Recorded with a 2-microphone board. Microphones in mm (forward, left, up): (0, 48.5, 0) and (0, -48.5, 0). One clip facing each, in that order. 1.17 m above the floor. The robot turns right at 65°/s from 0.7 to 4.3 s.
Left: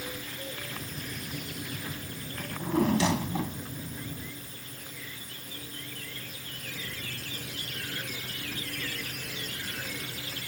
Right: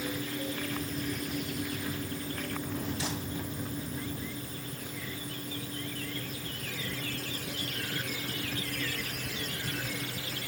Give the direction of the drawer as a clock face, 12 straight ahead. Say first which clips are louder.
Left 12 dB; 11 o'clock.